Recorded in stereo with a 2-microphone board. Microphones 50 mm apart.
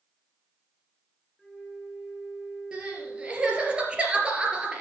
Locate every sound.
1.4 s a flute: 5° left (ahead or behind), 3 m
2.7 s crying: 20° right (ahead or behind), 2.5 m